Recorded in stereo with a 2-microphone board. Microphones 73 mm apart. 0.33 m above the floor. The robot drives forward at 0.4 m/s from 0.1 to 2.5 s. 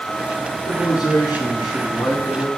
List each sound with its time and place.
0.7 s a man speaking: 65° left (ahead or behind), 3.5 m; by 2.5 s 70° left (ahead or behind), 3 m